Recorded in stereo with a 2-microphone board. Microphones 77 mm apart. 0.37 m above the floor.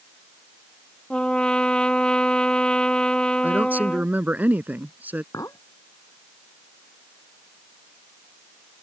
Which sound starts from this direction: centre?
A trumpet, at 1.1 s.